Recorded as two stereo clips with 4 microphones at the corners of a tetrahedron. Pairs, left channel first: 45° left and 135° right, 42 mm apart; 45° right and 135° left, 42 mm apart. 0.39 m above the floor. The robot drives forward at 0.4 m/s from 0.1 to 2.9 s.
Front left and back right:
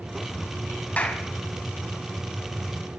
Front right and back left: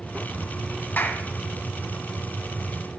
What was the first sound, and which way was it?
A clap, 5° right.